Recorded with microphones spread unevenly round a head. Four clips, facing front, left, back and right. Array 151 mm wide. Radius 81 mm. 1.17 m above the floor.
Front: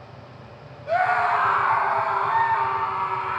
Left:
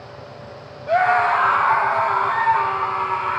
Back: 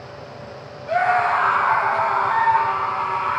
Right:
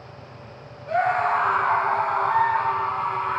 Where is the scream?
85° left, 1.8 m; by 3.4 s 95° left, 5.5 m.